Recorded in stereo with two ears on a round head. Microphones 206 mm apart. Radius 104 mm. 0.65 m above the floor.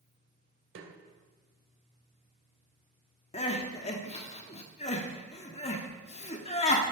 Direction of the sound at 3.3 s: 30° left (ahead or behind).